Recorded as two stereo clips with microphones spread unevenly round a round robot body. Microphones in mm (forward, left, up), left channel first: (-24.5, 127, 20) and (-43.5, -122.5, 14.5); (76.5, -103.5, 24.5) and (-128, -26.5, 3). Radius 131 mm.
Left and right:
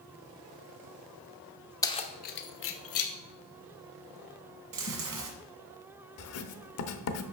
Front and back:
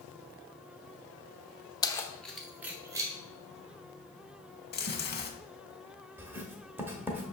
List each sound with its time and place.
1.8 s keys jangling: 30° left, 0.7 m; by 3.1 s 90° left, 1.3 m
4.7 s chewing: 65° right, 1.4 m
6.2 s writing: 80° left, 0.8 m